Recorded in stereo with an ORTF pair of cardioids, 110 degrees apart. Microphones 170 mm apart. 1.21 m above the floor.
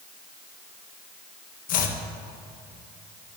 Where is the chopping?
60° left, 1.0 m.